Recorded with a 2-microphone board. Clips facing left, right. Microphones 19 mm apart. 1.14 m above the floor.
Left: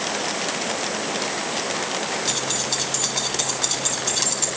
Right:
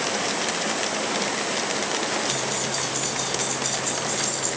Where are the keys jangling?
70° left (ahead or behind), 3 m.